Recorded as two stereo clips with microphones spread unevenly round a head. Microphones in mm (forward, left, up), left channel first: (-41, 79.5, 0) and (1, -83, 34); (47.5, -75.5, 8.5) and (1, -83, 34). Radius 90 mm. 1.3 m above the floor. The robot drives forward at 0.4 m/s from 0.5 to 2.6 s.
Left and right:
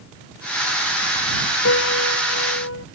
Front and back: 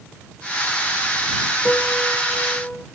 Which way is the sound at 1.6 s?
95° left.